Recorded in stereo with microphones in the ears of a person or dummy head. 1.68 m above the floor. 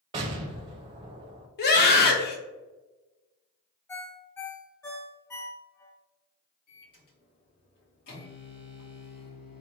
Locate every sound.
0.1 s an explosion: 30° right (ahead or behind), 0.6 m
1.6 s a scream: 60° left (ahead or behind), 1.0 m
3.9 s a ringtone: 15° left (ahead or behind), 0.6 m
6.7 s a microwave: 60° left (ahead or behind), 1.7 m